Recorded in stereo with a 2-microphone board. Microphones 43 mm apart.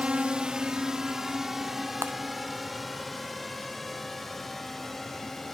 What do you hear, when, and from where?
0.0 s a drone: 25° right (ahead or behind); by 5.5 s 5° left (ahead or behind)
2.0 s breaking glass: 65° right (ahead or behind)